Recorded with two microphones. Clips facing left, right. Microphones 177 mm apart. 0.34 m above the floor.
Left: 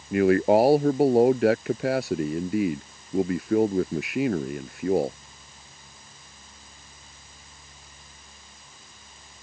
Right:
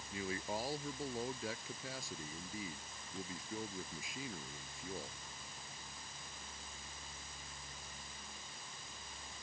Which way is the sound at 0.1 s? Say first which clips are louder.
Left 24 dB; 75° left (ahead or behind).